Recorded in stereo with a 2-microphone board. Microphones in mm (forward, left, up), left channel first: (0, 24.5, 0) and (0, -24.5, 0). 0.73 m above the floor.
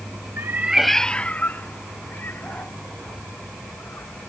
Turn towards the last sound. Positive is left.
turn(degrees=50)  # may be behind; listen again after turning